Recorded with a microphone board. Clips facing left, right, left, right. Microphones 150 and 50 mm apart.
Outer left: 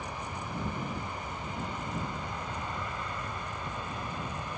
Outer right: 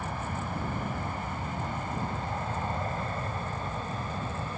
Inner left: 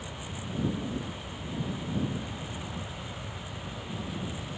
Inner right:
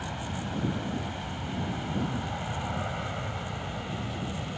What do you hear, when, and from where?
0.0 s an aircraft: 50° right (ahead or behind); by 4.6 s 35° right (ahead or behind)